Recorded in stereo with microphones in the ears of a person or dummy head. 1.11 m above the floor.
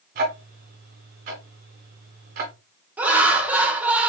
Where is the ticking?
40° right (ahead or behind), 0.8 m.